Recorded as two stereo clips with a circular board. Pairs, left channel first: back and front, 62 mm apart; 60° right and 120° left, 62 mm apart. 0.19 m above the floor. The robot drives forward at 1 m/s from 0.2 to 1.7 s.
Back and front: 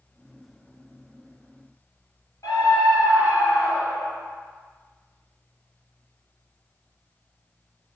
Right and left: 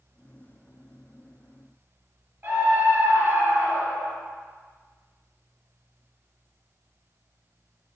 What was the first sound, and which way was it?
A scream, 175° left.